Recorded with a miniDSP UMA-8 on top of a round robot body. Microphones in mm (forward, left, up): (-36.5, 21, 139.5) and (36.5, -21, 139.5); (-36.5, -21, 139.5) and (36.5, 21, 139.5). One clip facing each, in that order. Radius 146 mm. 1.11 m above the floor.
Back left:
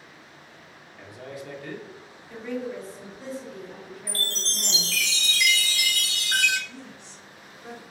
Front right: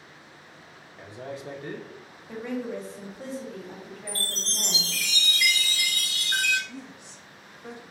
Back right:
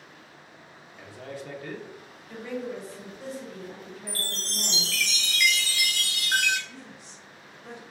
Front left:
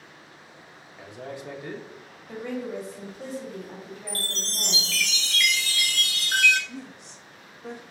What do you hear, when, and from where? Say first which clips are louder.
1.0 s a man speaking: front right 2 dB, front left 2 dB; 15° right, 0.7 m
2.3 s a woman speaking: even, front left 2 dB; 10° right, 1.2 m
4.1 s a chime: back left 2 dB, front left 2 dB; 130° left, 0.6 m
6.7 s a woman speaking: front right 1 dB, front left 5 dB; 50° left, 0.8 m